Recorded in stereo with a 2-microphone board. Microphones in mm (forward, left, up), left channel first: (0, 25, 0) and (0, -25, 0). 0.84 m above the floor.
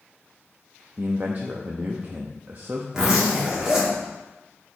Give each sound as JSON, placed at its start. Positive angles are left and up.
{"t": 1.0, "sound": "a man speaking", "side_deg": -40, "distance_m": 0.7}
{"t": 2.9, "sound": "a zipper", "side_deg": -15, "distance_m": 2.5}